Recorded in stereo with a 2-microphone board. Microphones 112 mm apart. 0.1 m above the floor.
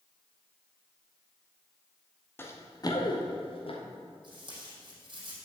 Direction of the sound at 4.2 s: 45° right (ahead or behind).